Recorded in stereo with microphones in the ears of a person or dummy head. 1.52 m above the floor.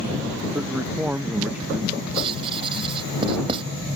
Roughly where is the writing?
Right.